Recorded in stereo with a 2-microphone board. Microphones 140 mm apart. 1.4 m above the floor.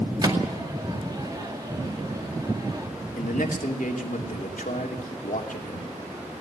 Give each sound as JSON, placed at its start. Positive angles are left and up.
{"t": 0.2, "sound": "a microwave", "side_deg": -30, "distance_m": 2.0}
{"t": 3.2, "sound": "a man speaking", "side_deg": 75, "distance_m": 3.0}